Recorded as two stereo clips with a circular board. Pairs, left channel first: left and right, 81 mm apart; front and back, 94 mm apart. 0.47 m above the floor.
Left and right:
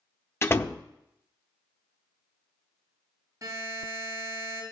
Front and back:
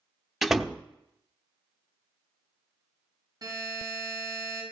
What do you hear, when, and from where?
0.4 s a door slam: 95° left, 0.5 m
3.4 s a buzzer: 140° right, 5.5 m